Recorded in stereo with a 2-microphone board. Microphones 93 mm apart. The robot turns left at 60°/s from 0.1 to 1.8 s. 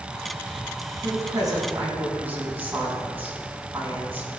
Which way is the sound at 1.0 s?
110° right.